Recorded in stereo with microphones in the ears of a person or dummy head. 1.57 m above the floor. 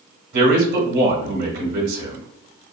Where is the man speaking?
55° right (ahead or behind), 1.2 m.